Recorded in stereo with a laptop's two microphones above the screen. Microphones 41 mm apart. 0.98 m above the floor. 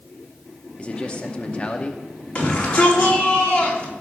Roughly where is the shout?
Left.